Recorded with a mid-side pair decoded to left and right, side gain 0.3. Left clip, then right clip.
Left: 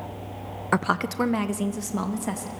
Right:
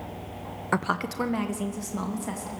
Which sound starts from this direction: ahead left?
A woman speaking, at 0.7 s.